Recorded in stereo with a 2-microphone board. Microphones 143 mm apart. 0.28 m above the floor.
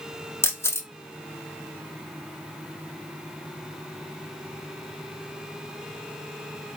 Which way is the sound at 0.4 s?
20° left (ahead or behind).